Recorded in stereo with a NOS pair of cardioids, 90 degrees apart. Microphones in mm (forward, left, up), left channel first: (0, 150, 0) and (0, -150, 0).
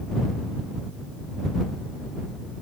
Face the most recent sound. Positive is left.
No sound to turn to.